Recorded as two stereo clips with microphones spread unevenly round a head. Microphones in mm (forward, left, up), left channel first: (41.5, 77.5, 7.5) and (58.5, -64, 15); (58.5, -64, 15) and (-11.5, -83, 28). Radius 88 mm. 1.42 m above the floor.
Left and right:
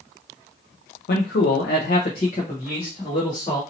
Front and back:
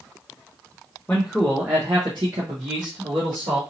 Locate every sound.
1.1 s a man speaking: 90° left, 0.5 m; by 3.6 s 170° left, 1.4 m